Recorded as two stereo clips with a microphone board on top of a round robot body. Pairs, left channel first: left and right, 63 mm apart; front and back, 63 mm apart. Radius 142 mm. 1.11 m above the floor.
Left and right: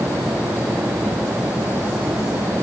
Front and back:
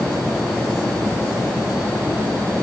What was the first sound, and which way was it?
Only background noise.